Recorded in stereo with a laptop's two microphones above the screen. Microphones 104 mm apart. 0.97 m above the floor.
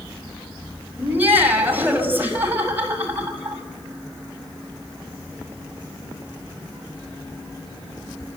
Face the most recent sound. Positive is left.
turn(degrees=-20)  # may be behind; listen again after turning